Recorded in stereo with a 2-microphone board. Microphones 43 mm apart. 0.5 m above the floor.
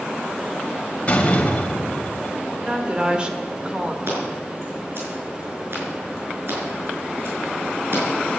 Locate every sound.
1.1 s a door slam: 30° left (ahead or behind), 1.9 m
2.6 s a woman speaking: 20° right (ahead or behind), 1.7 m
4.1 s scissors: 60° right (ahead or behind), 5.5 m